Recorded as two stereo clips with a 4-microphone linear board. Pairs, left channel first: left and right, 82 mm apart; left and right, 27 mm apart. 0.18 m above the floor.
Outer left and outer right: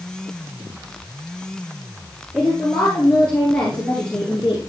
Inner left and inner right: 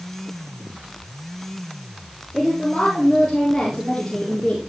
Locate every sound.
2.3 s a woman speaking: 5° left (ahead or behind), 4.5 m; by 4.6 s 20° left (ahead or behind), 3.5 m